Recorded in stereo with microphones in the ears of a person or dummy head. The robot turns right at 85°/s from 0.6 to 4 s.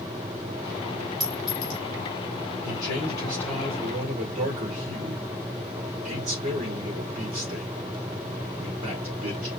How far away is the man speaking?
About 2.5 m.